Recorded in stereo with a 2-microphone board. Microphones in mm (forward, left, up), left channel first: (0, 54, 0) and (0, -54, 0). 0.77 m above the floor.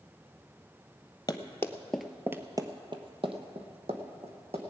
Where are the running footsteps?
40° left (ahead or behind), 1.0 m; by 4.6 s 70° right (ahead or behind), 2.5 m.